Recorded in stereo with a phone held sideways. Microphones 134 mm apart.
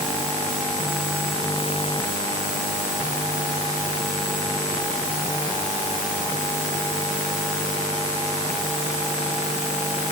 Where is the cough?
I don't hear a cough.